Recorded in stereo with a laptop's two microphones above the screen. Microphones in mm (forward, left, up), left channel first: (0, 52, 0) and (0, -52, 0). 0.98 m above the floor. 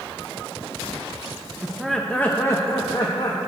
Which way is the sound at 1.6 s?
10° right (ahead or behind).